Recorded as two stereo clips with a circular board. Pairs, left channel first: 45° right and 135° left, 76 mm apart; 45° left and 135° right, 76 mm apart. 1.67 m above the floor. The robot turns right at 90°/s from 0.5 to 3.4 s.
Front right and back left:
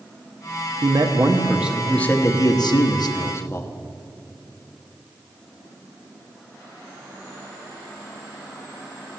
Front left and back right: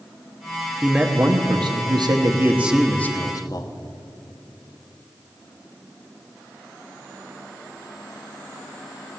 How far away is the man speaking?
About 1.0 m.